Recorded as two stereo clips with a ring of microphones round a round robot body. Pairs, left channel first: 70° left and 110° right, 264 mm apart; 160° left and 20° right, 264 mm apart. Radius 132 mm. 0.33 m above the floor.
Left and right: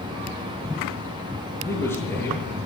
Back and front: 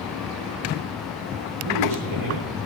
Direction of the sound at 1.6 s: 15° right.